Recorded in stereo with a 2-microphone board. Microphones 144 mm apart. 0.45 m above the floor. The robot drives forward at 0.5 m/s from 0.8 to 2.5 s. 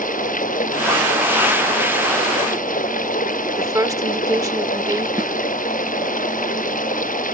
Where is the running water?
80° left.